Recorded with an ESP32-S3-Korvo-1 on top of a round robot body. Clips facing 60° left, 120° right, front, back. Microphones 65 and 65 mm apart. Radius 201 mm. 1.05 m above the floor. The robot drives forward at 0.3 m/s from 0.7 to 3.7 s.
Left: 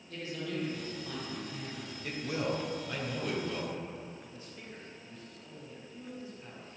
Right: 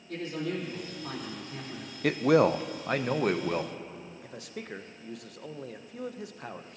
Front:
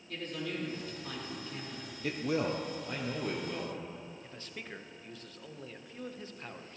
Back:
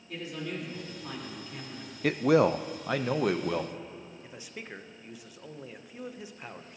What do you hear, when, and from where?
0.1 s a man speaking: 100° right, 4 m; by 1.9 s 105° right, 4 m
2.0 s a man speaking: 145° right, 0.5 m; by 3.8 s 165° right, 1.0 m
4.2 s a man speaking: 100° right, 0.8 m